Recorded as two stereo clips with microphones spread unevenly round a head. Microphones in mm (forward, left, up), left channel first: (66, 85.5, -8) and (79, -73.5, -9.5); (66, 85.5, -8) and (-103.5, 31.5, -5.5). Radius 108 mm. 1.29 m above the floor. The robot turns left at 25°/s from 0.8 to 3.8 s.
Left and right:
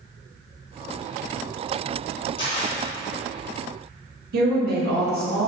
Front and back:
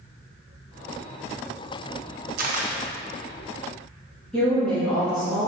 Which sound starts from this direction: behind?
A camera shutter, at 2.4 s.